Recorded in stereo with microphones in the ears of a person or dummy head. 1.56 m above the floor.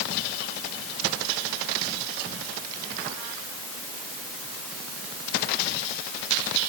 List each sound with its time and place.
Only background noise.